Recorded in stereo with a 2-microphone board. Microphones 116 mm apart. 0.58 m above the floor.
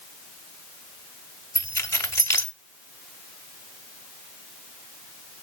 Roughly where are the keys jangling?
Left.